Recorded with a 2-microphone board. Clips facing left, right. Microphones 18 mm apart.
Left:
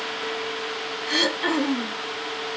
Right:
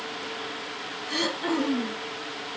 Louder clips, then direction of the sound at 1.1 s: Left 5 dB; 35° left (ahead or behind).